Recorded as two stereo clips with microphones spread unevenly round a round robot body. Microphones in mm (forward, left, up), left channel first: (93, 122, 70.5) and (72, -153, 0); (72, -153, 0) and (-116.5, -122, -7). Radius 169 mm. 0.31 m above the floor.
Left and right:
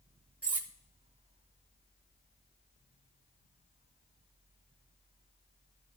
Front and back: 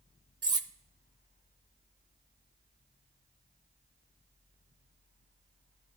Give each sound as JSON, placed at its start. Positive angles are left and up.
{"t": 0.4, "sound": "cutlery clinking", "azimuth_deg": -145, "distance_m": 0.5}